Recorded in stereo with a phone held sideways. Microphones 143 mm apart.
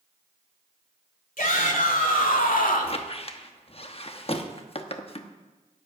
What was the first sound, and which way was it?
A shout, 70° left (ahead or behind).